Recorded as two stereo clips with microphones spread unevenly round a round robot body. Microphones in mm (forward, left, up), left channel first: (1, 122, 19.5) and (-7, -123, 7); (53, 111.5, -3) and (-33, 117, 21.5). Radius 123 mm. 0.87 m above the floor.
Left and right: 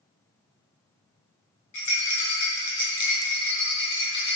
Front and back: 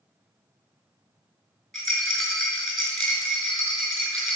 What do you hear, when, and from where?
1.7 s a rattle: 85° left, 4 m